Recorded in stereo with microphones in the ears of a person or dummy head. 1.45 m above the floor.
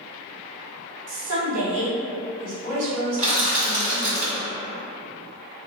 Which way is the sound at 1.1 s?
70° right (ahead or behind).